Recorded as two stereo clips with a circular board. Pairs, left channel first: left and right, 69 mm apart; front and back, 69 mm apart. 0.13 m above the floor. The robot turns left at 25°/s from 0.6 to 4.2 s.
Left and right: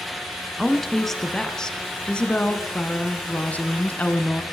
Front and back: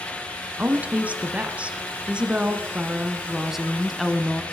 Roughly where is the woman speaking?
Behind.